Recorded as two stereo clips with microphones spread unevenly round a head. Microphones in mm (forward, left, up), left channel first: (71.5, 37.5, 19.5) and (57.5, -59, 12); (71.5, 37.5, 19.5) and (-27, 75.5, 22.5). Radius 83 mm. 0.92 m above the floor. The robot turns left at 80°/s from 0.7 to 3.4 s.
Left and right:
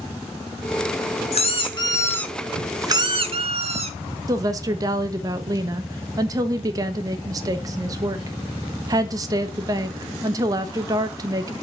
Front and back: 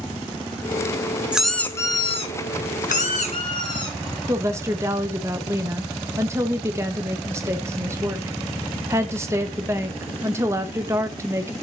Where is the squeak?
80° left, 1.2 m; by 4.0 s 85° right, 1.2 m.